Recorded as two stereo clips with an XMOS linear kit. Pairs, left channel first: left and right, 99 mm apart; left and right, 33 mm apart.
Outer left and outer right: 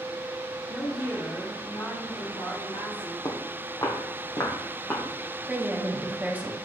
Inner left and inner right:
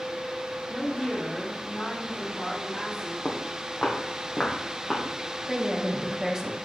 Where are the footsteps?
45° left (ahead or behind), 1.7 m; by 5.0 s 25° left (ahead or behind), 2.5 m.